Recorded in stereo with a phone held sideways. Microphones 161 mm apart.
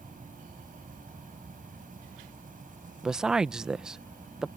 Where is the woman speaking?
5° right (ahead or behind).